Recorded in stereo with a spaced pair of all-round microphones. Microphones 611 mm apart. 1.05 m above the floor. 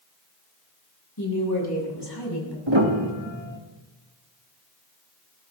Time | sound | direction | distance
1.2 | a woman speaking | 35° left (ahead or behind) | 8 m
2.7 | a piano | 45° right (ahead or behind) | 2 m